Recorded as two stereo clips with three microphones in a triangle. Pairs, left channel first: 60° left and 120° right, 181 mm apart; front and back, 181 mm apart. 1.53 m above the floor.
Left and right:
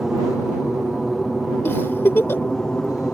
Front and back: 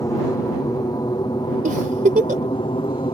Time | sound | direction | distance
0.0 | an aircraft | 35° right | ?
1.6 | a giggle | 135° left | ?